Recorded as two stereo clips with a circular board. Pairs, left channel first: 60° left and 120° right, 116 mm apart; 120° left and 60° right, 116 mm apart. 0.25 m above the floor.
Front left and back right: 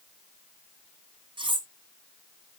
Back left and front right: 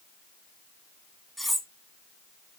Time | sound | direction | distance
1.4 | cutlery clinking | 150° right | 1.1 m